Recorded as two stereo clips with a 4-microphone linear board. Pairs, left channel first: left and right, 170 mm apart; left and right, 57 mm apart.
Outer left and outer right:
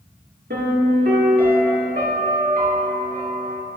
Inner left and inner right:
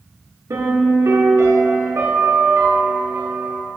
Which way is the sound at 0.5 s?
70° right (ahead or behind).